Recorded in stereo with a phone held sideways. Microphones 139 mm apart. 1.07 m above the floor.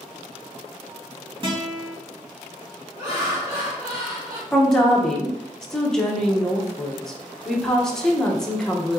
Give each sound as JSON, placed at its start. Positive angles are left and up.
{"t": 1.4, "sound": "a guitar", "side_deg": -35, "distance_m": 2.0}
{"t": 3.0, "sound": "laughter", "side_deg": -20, "distance_m": 2.5}
{"t": 4.5, "sound": "a woman speaking", "side_deg": 5, "distance_m": 1.0}